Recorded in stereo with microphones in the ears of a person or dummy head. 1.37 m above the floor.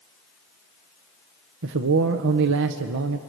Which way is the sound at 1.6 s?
65° right (ahead or behind).